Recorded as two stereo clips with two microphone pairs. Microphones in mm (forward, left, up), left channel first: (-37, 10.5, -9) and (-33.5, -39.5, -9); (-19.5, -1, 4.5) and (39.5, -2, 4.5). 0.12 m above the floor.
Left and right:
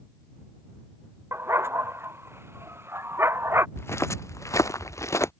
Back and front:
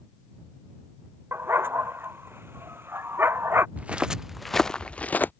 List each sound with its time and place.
1.3 s a dog barking: 50° right
3.8 s footsteps: 65° left; by 5.3 s 120° left